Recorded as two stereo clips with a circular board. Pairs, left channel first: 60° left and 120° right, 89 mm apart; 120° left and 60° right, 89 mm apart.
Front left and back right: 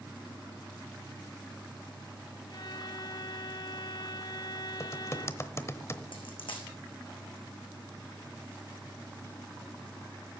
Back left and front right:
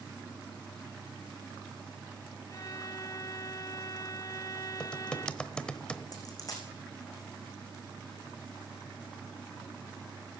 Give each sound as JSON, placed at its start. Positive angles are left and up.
{"t": 2.5, "sound": "a violin", "azimuth_deg": 80, "distance_m": 0.9}
{"t": 4.8, "sound": "typing on a keyboard", "azimuth_deg": 50, "distance_m": 0.9}
{"t": 6.1, "sound": "a dropped coin", "azimuth_deg": 75, "distance_m": 3.5}